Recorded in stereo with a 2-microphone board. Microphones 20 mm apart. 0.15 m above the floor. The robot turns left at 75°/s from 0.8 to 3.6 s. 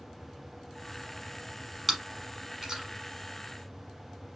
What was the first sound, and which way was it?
Chewing, 5° right (ahead or behind).